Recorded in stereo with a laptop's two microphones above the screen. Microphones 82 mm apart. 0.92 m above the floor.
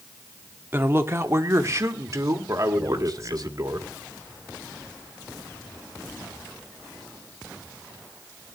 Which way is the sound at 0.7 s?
25° right (ahead or behind).